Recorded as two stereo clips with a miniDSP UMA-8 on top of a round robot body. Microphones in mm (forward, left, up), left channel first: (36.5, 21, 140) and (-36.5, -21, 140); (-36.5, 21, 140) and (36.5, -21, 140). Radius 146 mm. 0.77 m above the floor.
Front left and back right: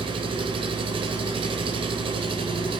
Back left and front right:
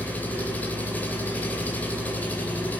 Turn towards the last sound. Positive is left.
turn(degrees=-140)